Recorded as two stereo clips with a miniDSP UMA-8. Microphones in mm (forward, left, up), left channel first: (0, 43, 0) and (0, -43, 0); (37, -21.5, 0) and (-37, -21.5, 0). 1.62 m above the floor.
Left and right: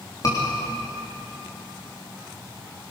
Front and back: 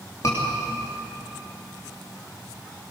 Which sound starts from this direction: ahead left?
A scream, at 0.2 s.